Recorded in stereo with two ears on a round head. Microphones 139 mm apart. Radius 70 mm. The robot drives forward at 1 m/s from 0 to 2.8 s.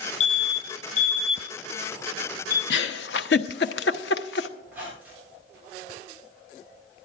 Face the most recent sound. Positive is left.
turn(degrees=-10)  # may be behind; listen again after turning